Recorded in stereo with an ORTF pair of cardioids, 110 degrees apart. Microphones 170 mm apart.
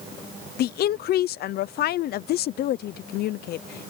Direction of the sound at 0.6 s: 65° left.